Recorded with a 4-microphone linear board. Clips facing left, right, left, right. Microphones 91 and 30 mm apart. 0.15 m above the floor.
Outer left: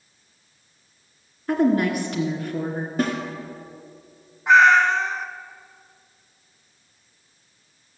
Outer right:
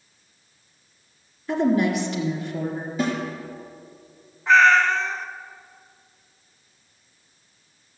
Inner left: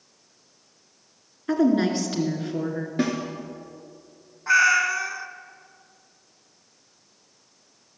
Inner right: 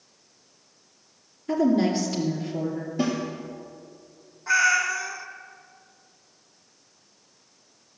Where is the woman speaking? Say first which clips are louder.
Outer left 1 dB, inner left 1 dB; 50° left (ahead or behind), 2 m.